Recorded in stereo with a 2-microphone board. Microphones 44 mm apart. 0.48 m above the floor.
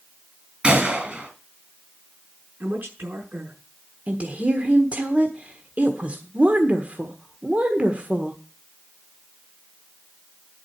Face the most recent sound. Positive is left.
turn(degrees=-35)  # may be behind; listen again after turning